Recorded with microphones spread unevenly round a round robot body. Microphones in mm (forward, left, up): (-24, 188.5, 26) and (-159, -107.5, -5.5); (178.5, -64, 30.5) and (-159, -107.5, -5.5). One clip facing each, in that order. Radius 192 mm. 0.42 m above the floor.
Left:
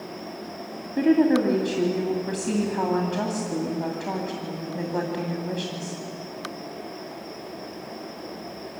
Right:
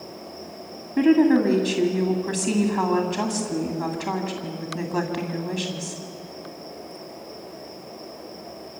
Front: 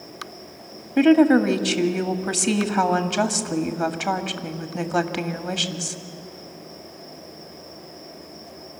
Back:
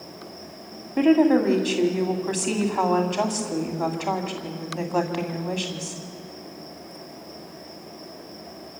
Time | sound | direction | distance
1.0 | a woman speaking | 45° right | 2 m